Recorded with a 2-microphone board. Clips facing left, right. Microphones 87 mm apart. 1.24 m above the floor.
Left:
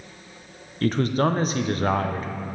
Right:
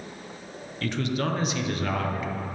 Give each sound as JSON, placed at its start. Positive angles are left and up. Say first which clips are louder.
{"t": 0.8, "sound": "a man speaking", "louder": "left 6 dB", "side_deg": 40, "distance_m": 0.7}